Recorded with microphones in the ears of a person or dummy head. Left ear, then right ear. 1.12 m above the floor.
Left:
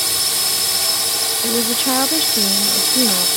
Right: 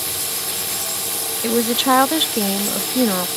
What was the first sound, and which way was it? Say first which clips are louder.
A drone: left 7 dB; 70° left (ahead or behind).